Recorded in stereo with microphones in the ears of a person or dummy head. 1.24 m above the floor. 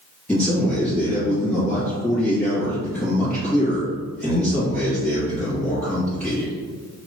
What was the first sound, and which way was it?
A man speaking, 10° left (ahead or behind).